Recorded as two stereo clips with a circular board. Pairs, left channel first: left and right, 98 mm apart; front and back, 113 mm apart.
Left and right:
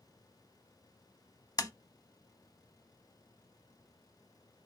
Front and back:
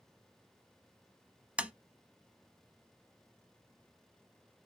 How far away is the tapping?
About 0.7 m.